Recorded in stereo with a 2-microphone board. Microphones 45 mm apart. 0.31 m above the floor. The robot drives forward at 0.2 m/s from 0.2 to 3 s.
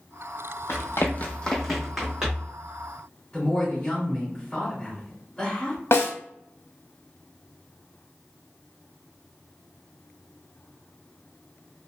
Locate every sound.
0.7 s running footsteps: 70° left (ahead or behind), 0.8 m; by 2.5 s 15° right (ahead or behind), 1.7 m
3.3 s a woman speaking: 15° left (ahead or behind), 2.0 m
5.9 s a snare drum: 65° left (ahead or behind), 0.6 m